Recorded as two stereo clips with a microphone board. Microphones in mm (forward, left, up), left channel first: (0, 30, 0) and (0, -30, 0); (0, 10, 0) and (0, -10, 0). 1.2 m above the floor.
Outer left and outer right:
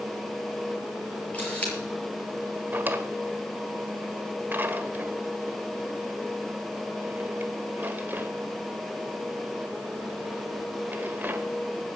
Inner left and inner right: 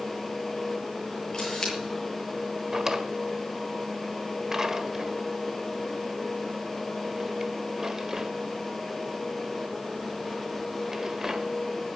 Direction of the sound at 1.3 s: 25° left (ahead or behind).